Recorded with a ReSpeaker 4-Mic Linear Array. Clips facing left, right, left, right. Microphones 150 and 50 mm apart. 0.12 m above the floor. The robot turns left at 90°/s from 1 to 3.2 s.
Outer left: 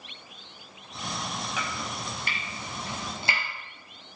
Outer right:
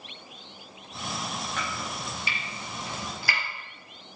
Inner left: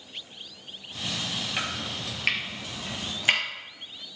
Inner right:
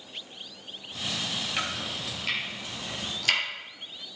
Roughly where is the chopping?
Centre.